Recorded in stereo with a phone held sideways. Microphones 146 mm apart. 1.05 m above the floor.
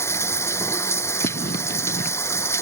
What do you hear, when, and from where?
0.0 s running water: 20° left (ahead or behind)
1.2 s writing: 80° left